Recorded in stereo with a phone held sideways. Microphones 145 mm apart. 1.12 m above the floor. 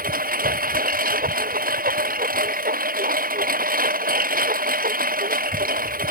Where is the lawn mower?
75° right (ahead or behind).